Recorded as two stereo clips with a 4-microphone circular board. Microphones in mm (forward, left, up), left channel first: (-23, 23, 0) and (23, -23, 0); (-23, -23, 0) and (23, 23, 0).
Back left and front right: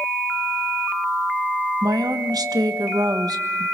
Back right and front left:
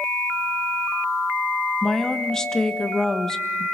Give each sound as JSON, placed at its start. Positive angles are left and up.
{"t": 1.8, "sound": "a woman speaking", "azimuth_deg": -55, "distance_m": 1.2}